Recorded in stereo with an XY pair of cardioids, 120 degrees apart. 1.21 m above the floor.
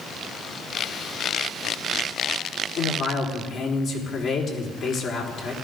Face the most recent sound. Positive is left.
turn(degrees=60)